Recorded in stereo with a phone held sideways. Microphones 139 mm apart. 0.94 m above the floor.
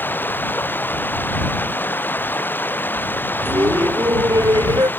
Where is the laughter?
30° right (ahead or behind).